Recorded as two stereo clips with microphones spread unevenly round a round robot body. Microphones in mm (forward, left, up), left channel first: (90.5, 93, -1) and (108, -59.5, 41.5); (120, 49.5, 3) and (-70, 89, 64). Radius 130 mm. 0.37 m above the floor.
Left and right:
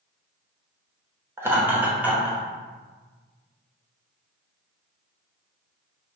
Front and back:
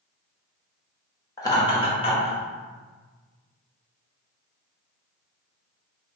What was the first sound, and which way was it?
Laughter, 5° left.